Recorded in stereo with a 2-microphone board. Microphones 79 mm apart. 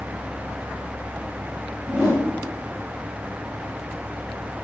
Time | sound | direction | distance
1.9 | a whoosh | 30° right (ahead or behind) | 5.5 m